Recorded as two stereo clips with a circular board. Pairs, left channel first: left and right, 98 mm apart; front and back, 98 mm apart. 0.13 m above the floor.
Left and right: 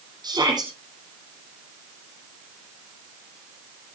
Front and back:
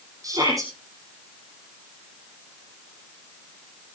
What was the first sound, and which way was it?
A shout, 130° right.